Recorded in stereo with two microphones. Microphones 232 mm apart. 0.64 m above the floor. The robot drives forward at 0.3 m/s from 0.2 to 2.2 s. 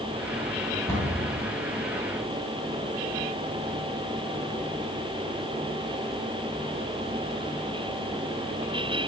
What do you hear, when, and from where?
0.9 s a cupboard door: 15° left (ahead or behind), 3 m